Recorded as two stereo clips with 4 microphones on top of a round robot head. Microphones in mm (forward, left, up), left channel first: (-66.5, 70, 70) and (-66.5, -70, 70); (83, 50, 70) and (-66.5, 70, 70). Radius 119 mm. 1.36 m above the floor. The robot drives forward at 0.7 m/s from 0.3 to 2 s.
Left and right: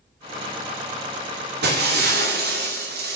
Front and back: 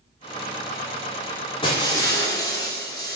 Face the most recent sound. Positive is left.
turn(degrees=-80)